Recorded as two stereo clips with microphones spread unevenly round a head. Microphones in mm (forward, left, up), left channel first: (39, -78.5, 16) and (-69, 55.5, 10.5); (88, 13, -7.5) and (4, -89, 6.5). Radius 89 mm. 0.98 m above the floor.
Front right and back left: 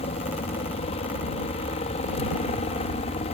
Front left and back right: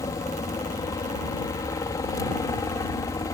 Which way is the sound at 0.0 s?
5° right.